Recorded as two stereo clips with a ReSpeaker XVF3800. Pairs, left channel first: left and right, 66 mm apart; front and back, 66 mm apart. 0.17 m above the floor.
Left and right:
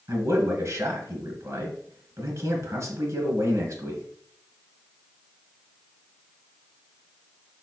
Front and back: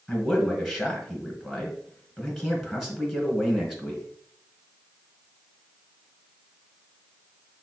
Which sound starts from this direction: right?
A man speaking, at 0.1 s.